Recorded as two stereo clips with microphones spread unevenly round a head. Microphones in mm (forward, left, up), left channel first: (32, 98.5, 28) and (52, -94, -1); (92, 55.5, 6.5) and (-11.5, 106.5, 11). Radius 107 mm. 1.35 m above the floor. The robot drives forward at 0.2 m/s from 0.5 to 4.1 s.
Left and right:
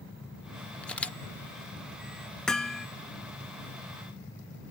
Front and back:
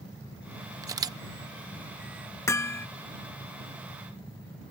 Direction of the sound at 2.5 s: 25° left.